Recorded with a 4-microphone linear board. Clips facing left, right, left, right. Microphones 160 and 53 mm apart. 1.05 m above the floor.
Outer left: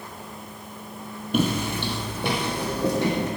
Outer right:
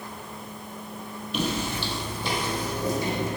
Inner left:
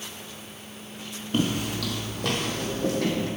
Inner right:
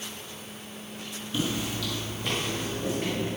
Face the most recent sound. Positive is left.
turn(degrees=65)  # may be behind; listen again after turning